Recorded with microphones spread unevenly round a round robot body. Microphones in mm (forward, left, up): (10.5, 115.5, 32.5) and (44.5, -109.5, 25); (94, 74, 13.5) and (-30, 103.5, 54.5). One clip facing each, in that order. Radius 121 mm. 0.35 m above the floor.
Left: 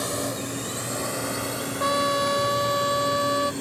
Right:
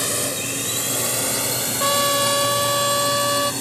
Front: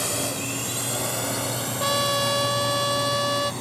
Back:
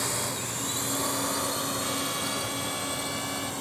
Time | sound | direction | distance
0.0 | a drone | 60° right | ?
1.8 | a trumpet | 35° right | ?